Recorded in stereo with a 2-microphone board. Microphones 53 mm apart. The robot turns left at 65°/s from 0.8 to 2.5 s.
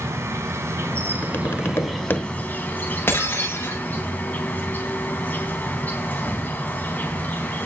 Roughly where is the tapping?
Behind left.